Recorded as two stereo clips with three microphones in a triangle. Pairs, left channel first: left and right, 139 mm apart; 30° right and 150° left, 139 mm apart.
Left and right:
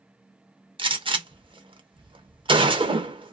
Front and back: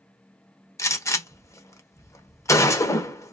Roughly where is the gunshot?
Right.